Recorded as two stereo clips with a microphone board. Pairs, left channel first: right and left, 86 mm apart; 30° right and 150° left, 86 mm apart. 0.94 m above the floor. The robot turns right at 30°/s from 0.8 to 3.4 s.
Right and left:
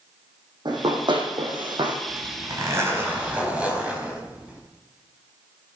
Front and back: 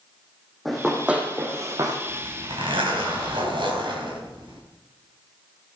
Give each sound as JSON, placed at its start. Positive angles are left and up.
{"t": 0.7, "sound": "running footsteps", "azimuth_deg": 60, "distance_m": 3.0}
{"t": 2.1, "sound": "a zipper", "azimuth_deg": 125, "distance_m": 3.5}